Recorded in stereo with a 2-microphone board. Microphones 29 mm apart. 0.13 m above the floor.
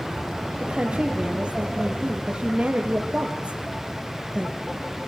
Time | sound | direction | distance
0.6 | a woman speaking | 45° right (ahead or behind) | 3.5 m